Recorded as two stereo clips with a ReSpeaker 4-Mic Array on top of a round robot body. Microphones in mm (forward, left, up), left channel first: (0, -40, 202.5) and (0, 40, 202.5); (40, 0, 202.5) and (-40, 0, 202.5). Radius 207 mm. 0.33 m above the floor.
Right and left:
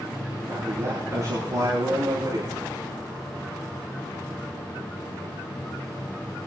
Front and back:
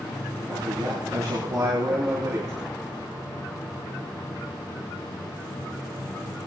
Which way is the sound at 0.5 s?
145° left.